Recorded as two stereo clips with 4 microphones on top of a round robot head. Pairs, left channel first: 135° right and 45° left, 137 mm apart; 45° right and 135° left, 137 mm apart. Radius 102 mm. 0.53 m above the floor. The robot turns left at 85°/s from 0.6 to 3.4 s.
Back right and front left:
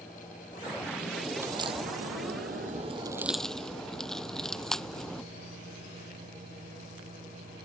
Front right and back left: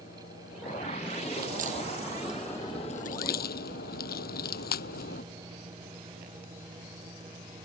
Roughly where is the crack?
Behind left.